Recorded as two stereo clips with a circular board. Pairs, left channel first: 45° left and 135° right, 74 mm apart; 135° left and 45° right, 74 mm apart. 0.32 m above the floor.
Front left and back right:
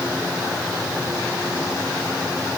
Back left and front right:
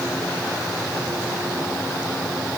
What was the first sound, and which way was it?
Only background noise.